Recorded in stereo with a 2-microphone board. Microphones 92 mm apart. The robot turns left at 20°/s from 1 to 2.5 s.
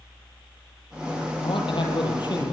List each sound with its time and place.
1.4 s a man speaking: 70° left (ahead or behind), 4 m; by 2.5 s 50° left (ahead or behind), 4 m